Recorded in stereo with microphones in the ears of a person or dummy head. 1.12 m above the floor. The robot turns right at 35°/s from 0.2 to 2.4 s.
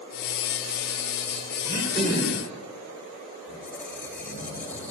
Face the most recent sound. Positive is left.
turn(degrees=10)  # may be behind; listen again after turning